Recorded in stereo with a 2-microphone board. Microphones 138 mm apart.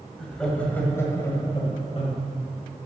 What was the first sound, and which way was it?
Laughter, centre (ahead or behind).